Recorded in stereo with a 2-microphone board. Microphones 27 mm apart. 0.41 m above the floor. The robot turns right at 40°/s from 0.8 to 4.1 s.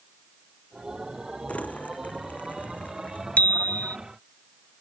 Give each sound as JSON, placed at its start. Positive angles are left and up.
{"t": 1.5, "sound": "crumpling", "azimuth_deg": 55}
{"t": 3.4, "sound": "a bicycle bell", "side_deg": 60}